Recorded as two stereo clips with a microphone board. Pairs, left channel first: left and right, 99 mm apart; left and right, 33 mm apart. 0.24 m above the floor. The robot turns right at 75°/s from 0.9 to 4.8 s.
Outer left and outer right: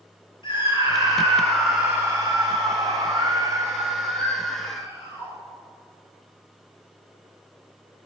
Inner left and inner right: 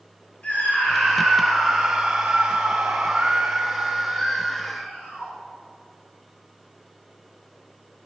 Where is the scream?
120° left, 4.5 m; by 5.3 s 55° left, 4.5 m.